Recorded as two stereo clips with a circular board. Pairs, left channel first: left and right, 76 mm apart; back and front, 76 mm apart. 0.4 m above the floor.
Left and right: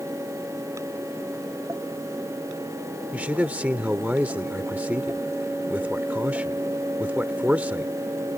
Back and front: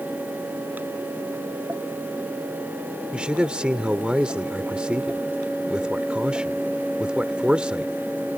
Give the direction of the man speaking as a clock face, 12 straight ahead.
2 o'clock.